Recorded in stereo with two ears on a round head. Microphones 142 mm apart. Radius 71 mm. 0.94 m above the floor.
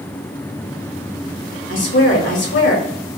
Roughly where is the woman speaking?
Left.